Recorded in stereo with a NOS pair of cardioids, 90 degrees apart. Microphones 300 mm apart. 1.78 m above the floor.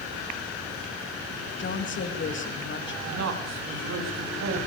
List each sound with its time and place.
1.6 s a woman speaking: 40° left, 3.5 m
3.0 s a man speaking: 60° right, 4.5 m